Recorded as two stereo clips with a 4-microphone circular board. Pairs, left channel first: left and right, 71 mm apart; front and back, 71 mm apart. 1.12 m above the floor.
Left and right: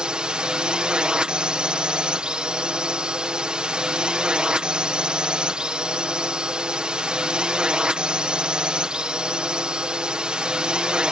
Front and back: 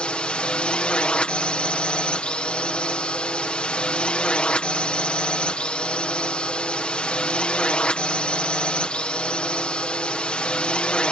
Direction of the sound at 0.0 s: 40° right.